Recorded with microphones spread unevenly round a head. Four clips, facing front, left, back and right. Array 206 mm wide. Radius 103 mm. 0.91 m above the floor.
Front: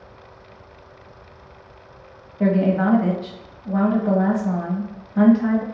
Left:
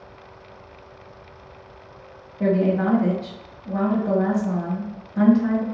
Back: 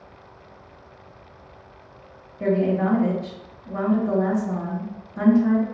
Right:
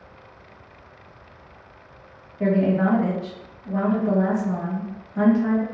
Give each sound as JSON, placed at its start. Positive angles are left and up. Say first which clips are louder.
{"t": 2.4, "sound": "a woman speaking", "louder": "even, front 2 dB", "azimuth_deg": 5, "distance_m": 1.7}